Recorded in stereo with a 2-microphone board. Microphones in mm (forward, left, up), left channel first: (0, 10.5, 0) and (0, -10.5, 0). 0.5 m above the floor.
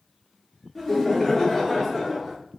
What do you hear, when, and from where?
0.8 s laughter: 15° left (ahead or behind), 0.8 m; by 2.4 s 25° left (ahead or behind), 1.4 m